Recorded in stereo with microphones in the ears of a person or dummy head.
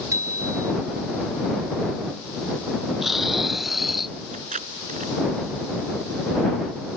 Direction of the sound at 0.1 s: 15° right (ahead or behind).